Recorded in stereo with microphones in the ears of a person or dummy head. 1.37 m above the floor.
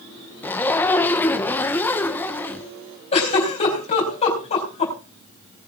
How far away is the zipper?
About 1.0 m.